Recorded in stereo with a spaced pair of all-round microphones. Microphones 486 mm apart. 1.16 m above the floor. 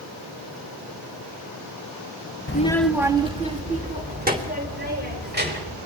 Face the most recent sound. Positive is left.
turn(degrees=-20)  # may be behind; listen again after turning